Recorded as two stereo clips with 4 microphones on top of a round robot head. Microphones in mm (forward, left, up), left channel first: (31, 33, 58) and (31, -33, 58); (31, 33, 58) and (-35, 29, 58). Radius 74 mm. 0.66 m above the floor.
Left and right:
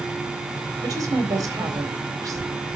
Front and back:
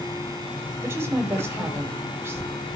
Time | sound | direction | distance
0.8 | a woman speaking | 125° right | 2.5 m